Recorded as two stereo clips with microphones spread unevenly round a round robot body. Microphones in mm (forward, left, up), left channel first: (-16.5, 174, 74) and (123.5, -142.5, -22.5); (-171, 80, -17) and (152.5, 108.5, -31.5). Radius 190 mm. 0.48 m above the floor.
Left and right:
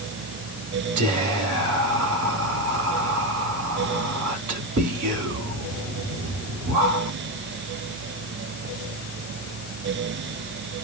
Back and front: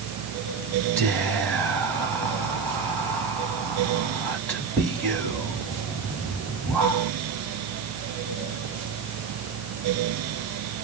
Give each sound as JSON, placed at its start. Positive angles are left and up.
{"t": 1.0, "sound": "whispering", "azimuth_deg": -90, "distance_m": 2.0}